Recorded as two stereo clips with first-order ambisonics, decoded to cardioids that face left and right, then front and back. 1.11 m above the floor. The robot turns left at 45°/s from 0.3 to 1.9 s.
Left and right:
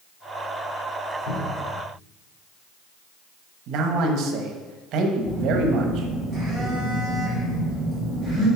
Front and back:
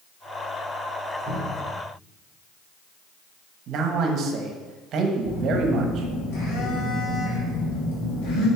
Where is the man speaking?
130° right, 1.0 m.